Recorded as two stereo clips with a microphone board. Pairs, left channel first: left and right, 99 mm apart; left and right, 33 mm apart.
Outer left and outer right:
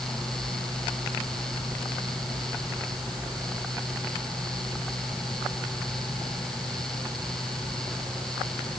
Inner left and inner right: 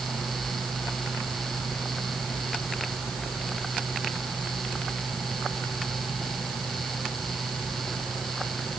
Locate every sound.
Only background noise.